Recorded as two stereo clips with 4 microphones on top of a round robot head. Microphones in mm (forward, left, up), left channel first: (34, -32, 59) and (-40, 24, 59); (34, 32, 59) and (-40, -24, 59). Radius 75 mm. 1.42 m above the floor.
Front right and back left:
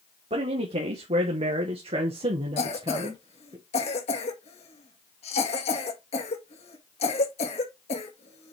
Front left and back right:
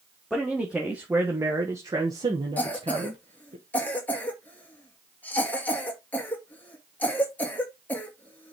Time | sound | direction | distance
0.3 | a man speaking | 130° left | 1.6 m
2.6 | a cough | 40° right | 2.0 m